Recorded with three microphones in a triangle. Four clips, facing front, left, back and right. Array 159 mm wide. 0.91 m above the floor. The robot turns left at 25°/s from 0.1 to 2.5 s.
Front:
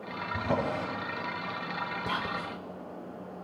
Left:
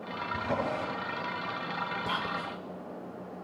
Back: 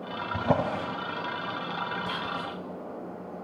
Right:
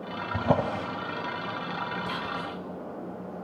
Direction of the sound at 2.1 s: 40° left.